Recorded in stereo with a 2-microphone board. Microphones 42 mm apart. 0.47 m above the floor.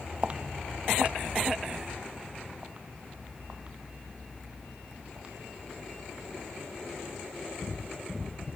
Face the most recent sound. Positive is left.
turn(degrees=-25)  # may be behind; listen again after turning